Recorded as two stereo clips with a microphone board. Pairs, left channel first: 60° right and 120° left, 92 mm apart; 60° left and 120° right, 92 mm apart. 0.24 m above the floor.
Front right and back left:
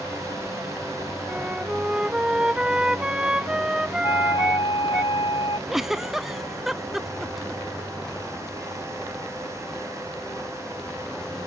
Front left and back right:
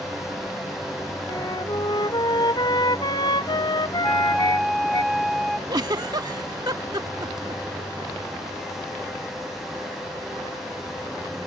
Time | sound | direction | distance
1.3 | a flute | 40° left | ?
4.0 | a flute | 30° right | ?
5.7 | a giggle | 155° right | ?